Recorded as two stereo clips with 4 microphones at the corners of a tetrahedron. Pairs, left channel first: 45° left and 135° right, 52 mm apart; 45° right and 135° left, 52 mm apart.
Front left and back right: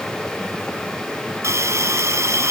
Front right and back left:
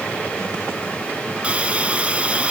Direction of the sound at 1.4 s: 155° right.